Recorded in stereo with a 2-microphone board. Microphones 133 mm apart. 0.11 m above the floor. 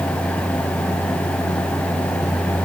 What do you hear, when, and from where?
Only background noise.